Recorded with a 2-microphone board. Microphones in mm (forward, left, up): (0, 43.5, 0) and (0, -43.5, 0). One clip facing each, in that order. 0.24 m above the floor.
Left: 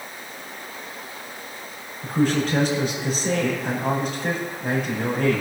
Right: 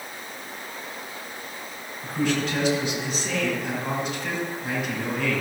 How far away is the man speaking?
About 6.5 m.